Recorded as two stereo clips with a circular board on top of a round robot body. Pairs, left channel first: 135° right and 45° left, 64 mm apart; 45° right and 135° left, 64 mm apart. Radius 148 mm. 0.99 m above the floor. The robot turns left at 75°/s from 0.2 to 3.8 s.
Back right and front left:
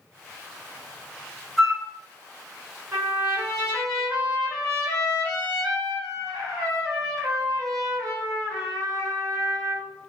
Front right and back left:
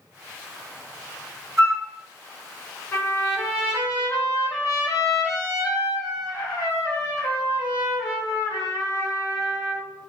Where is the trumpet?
10° left, 1.7 m; by 9.9 s 55° right, 1.7 m.